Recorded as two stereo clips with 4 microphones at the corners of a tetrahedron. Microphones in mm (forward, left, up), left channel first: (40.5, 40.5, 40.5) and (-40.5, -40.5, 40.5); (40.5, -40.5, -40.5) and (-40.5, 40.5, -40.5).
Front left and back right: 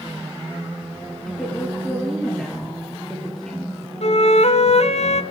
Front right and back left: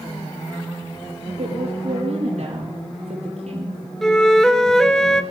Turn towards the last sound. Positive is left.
turn(degrees=40)